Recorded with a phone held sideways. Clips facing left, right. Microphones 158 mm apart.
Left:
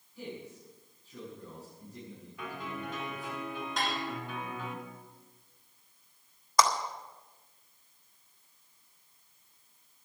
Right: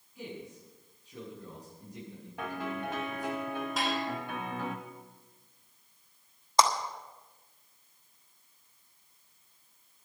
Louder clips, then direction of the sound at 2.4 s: Right 4 dB; 70° right (ahead or behind).